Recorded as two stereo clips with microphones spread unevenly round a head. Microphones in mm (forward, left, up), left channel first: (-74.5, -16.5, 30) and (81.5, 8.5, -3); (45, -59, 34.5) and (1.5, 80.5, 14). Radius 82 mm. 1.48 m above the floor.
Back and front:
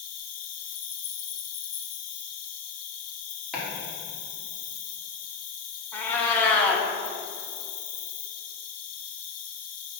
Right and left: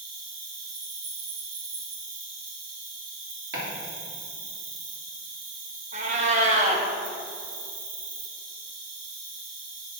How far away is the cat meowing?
About 0.9 m.